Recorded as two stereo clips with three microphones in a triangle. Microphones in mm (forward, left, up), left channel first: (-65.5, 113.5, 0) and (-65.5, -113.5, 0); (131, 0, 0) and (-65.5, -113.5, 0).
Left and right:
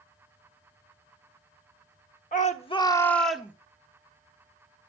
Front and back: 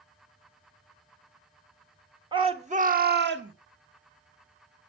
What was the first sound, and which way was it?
A shout, 145° left.